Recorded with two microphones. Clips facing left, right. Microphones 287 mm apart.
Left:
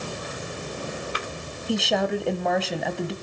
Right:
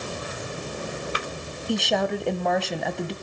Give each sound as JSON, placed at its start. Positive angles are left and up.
{"t": 1.7, "sound": "a woman speaking", "side_deg": 0, "distance_m": 1.3}